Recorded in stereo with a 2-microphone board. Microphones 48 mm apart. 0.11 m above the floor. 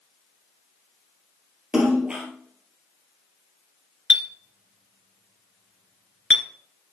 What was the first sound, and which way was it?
A splash, 20° right (ahead or behind).